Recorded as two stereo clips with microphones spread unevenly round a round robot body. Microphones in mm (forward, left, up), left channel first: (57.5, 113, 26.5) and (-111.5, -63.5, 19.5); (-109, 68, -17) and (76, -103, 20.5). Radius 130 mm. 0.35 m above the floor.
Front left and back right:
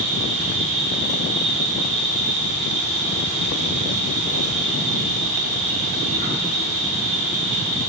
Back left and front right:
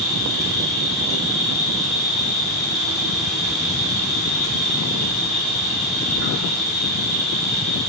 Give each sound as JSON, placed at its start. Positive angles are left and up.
{"t": 0.0, "sound": "an insect", "azimuth_deg": -150, "distance_m": 0.9}